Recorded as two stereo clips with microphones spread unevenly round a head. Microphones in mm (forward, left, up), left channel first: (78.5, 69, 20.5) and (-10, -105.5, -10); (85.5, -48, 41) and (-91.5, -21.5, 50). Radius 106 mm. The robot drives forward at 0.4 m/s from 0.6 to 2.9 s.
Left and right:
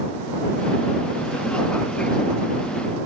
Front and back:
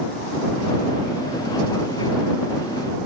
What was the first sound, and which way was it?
Only background noise.